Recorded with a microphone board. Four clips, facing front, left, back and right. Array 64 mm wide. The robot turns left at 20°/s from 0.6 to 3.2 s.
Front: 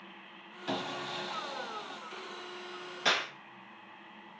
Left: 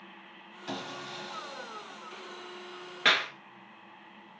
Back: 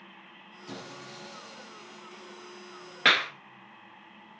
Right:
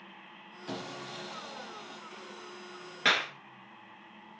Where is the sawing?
10° left, 1.0 m; by 2.0 s 15° right, 1.0 m.